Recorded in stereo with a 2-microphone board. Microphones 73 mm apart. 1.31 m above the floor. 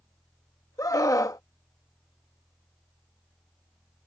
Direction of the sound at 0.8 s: 50° left (ahead or behind).